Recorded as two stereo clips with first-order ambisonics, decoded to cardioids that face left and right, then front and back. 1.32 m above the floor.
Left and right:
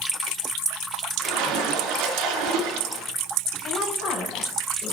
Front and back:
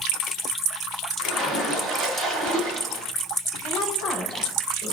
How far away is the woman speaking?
About 3.5 m.